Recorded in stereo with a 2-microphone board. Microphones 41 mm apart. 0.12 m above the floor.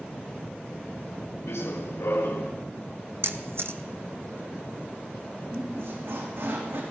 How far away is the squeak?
About 4.5 m.